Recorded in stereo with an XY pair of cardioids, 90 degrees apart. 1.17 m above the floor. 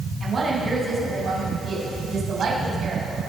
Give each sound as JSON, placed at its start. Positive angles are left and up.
{"t": 0.2, "sound": "a woman speaking", "azimuth_deg": -50, "distance_m": 7.5}